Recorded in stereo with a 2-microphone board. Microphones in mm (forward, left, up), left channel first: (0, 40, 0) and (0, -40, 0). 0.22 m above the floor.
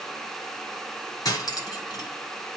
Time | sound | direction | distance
1.2 | cutlery clinking | 50° left (ahead or behind) | 1.5 m